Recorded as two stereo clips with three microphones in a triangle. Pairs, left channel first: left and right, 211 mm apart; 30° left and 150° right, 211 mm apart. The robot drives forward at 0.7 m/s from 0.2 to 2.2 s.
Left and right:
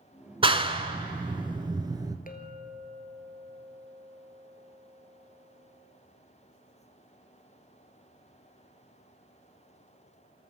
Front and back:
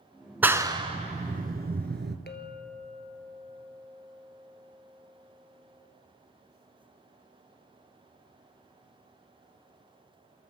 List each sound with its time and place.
0.4 s a clap: 80° right, 1.0 m; by 2.2 s 160° right, 1.5 m
2.3 s a clink: 50° left, 1.8 m